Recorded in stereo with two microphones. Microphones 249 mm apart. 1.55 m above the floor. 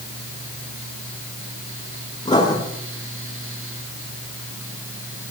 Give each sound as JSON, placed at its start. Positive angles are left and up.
{"t": 2.2, "sound": "writing", "side_deg": 15, "distance_m": 7.5}